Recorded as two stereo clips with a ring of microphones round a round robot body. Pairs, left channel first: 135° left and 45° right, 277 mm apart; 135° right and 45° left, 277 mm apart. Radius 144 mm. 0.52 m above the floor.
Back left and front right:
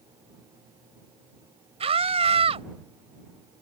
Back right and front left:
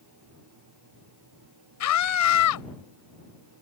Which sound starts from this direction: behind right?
A scream, at 1.8 s.